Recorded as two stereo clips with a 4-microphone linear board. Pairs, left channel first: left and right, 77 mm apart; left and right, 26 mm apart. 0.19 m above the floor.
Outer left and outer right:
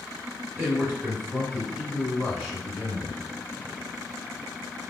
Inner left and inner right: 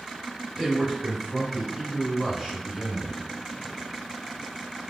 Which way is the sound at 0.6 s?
Centre (ahead or behind).